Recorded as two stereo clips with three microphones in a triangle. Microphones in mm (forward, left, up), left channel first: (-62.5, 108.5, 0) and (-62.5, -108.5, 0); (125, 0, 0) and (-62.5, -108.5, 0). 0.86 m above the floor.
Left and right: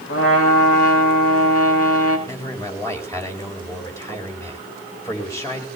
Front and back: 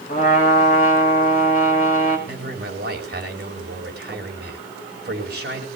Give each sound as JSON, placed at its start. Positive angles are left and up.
{"t": 0.1, "sound": "a trumpet", "azimuth_deg": 85, "distance_m": 5.5}
{"t": 2.3, "sound": "a man speaking", "azimuth_deg": 170, "distance_m": 4.5}